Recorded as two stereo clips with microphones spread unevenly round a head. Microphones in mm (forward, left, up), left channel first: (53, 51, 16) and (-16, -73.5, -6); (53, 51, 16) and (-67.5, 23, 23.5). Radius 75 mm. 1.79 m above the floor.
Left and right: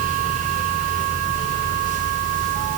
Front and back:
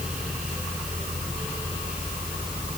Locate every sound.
Only background noise.